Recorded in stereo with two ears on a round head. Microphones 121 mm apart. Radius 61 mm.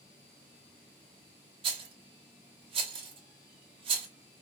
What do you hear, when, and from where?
1.6 s a rattle: 40° right (ahead or behind), 1.2 m